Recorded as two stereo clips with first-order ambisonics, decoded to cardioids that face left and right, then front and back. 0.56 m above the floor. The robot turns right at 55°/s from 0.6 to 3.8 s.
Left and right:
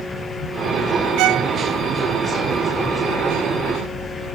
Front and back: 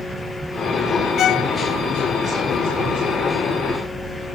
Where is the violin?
60° right; by 1.5 s 40° right.